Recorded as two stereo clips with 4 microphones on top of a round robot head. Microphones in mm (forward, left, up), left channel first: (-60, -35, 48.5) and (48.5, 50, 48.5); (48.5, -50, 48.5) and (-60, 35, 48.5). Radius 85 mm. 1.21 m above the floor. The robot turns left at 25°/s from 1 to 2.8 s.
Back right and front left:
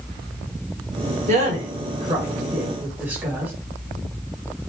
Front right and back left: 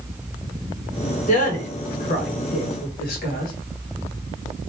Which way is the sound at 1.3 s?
Straight ahead.